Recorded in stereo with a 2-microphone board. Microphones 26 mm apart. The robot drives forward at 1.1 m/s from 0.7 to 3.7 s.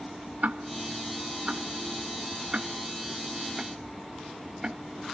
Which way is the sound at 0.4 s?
70° right (ahead or behind).